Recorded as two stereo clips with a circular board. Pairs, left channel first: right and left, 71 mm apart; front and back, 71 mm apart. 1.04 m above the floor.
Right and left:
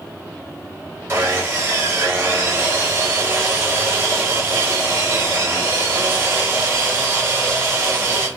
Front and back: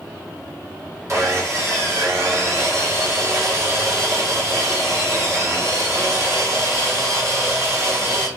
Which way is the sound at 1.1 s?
135° left.